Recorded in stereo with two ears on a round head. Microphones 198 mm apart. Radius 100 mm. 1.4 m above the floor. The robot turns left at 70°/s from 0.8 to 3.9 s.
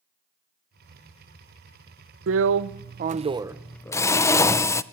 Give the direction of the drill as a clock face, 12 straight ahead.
3 o'clock.